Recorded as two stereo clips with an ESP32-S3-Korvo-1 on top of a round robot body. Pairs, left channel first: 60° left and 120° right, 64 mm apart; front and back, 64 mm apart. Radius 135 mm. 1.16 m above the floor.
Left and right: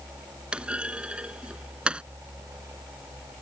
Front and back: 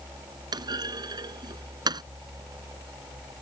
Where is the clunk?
165° left.